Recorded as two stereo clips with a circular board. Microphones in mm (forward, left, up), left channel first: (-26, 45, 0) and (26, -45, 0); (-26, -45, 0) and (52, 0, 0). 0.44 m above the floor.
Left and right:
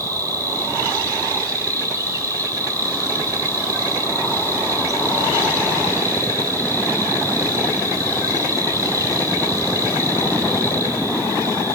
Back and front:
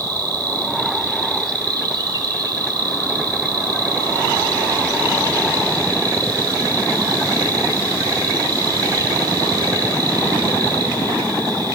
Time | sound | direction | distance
0.0 | an insect | 5° right | 1.5 m